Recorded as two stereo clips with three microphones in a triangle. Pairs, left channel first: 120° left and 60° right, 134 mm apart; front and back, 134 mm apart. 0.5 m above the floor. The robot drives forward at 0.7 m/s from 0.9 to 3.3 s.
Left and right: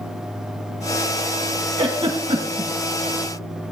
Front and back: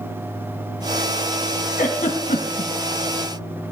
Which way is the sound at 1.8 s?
10° right.